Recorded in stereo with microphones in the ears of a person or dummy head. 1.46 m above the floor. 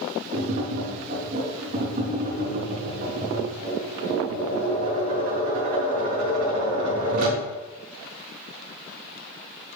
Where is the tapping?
40° right (ahead or behind), 3 m.